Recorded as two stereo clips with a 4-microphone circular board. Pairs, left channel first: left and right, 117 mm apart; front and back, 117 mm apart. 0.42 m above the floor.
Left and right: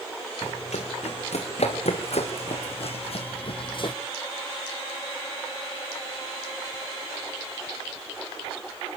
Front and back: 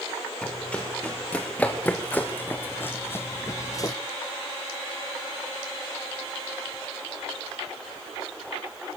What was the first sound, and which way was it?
Running footsteps, 80° left.